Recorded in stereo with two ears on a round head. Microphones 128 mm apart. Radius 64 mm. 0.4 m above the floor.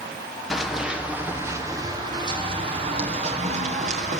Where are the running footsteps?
Centre (ahead or behind), 4 m; by 4.2 s 55° right (ahead or behind), 6 m.